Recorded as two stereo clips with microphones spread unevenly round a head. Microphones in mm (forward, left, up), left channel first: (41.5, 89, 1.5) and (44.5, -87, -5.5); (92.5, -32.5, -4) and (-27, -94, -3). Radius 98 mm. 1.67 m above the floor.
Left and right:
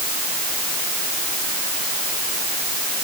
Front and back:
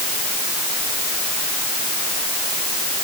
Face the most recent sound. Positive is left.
No sound to turn to.